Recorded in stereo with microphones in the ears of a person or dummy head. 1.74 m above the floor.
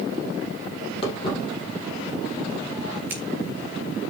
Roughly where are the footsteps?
Left.